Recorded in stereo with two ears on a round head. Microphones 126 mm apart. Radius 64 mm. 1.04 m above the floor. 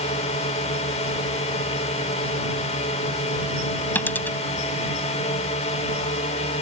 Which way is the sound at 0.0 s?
50° left (ahead or behind).